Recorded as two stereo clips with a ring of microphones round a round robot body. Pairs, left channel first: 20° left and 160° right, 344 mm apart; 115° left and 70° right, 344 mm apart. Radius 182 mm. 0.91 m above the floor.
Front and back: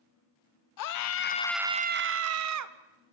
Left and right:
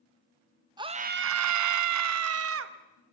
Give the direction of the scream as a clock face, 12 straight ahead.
12 o'clock.